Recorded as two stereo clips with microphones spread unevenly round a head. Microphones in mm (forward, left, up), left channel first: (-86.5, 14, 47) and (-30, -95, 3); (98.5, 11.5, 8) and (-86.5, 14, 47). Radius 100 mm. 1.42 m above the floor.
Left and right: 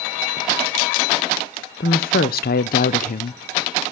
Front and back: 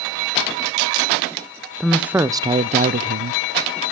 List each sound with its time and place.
1.8 s a woman speaking: 85° left, 1.0 m; by 3.4 s 145° left, 1.0 m